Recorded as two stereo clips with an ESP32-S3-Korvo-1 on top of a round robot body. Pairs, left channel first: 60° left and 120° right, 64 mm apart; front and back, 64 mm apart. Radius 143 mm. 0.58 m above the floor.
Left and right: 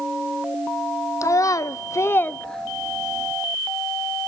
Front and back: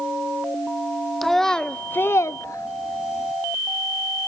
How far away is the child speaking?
About 0.9 m.